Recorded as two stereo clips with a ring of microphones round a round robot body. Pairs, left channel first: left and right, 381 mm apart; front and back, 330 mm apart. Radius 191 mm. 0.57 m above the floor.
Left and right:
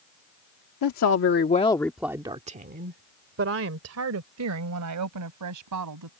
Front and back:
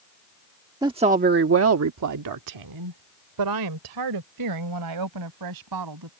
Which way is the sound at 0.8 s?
105° left.